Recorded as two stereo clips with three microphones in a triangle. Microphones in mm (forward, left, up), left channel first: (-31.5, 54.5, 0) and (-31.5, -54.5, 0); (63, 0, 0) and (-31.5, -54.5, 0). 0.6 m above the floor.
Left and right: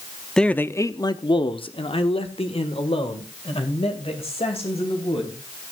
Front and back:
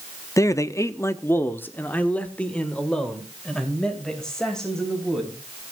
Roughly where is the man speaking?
Ahead.